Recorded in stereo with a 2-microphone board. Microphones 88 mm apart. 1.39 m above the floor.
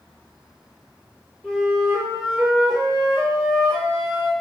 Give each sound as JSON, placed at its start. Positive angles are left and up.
{"t": 1.4, "sound": "a flute", "side_deg": -5, "distance_m": 1.6}